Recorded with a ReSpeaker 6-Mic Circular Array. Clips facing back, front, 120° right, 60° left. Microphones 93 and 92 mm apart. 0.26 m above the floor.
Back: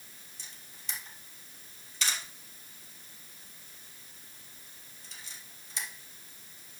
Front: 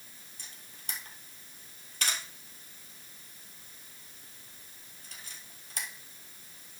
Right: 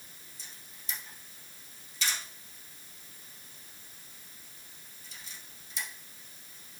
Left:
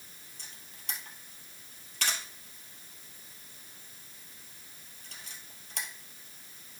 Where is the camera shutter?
35° left, 2.5 m.